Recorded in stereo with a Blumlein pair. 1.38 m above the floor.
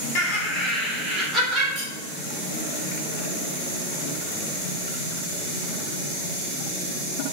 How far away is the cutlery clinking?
About 1.9 m.